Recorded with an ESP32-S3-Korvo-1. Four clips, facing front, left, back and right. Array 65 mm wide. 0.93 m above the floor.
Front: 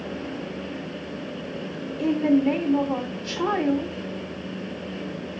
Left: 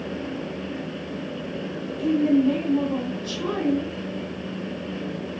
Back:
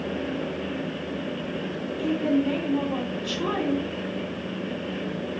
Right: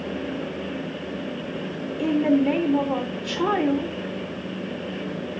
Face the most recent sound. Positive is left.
turn(degrees=-50)